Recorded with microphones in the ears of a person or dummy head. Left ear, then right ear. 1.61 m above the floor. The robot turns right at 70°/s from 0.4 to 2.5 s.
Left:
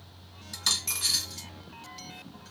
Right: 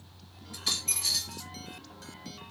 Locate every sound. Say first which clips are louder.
0.5 s a dropped coin: left 3 dB; 55° left, 1.6 m; by 1.5 s 120° left, 1.6 m